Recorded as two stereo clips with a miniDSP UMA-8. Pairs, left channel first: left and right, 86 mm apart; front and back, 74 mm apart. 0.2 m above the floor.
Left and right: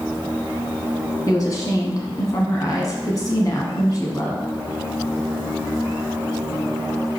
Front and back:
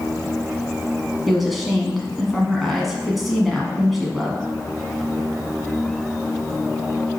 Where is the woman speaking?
90° left, 1.4 m.